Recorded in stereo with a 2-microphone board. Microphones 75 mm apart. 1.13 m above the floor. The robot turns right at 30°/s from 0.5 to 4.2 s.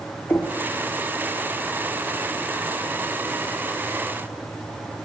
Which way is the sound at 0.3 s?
25° left (ahead or behind).